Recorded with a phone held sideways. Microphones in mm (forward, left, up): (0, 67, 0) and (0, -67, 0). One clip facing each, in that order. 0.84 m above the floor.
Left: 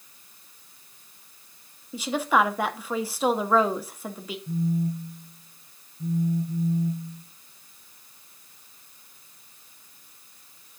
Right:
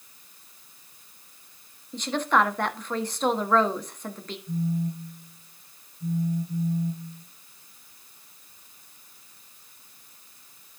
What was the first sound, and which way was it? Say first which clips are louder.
A woman speaking: left 1 dB; 5° left (ahead or behind).